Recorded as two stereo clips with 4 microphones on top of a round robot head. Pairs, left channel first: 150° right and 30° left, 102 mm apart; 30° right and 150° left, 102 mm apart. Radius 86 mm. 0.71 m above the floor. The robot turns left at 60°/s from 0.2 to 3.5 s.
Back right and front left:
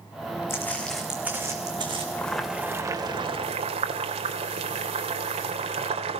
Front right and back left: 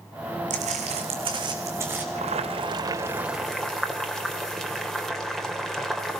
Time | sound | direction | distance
0.5 | footsteps | 145° left | 3 m
2.1 | boiling | 135° left | 2.5 m